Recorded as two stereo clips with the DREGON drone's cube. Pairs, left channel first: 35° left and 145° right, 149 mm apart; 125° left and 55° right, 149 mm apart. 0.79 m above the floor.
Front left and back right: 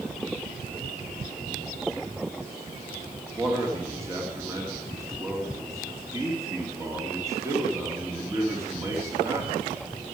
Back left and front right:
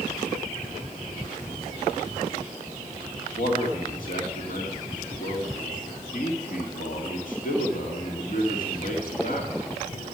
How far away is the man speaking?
About 2 m.